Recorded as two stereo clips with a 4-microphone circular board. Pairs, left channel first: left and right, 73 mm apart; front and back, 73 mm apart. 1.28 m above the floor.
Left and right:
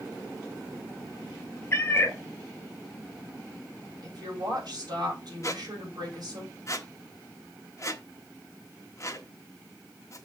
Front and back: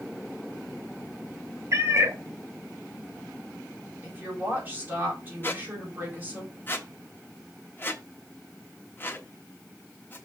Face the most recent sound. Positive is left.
turn(degrees=55)